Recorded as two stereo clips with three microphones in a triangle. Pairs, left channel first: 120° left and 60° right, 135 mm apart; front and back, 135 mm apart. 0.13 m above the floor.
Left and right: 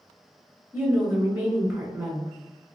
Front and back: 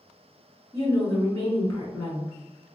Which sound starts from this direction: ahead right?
A woman speaking, at 0.7 s.